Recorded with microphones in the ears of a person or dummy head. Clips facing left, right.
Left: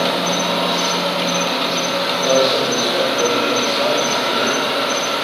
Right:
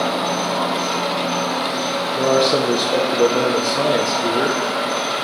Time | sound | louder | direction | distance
0.0 | an insect | left 2 dB | 55° left (ahead or behind) | 1.4 m
2.1 | a man speaking | even | 65° right (ahead or behind) | 1.0 m